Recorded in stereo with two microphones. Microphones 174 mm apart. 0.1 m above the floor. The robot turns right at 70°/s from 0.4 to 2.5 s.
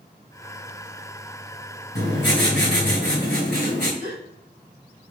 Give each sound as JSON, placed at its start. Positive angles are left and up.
{"t": 1.9, "sound": "writing", "azimuth_deg": 70, "distance_m": 2.5}
{"t": 4.0, "sound": "a gasp", "side_deg": -45, "distance_m": 1.4}